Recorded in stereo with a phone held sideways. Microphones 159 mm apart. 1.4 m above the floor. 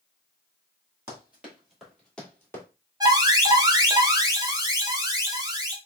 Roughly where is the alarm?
Right.